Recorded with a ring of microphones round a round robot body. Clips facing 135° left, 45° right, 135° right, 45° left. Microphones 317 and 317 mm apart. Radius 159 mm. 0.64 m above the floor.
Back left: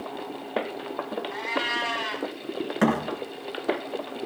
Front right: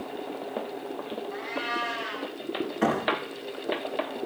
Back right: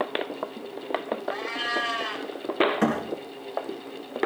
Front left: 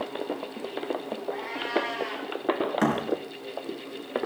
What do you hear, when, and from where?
1.3 s a cat meowing: 165° left, 2.5 m
2.8 s a thud: 120° left, 4 m